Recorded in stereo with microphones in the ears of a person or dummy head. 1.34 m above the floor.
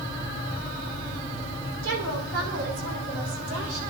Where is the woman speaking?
85° right, 6 m; by 3.8 s 80° right, 7 m.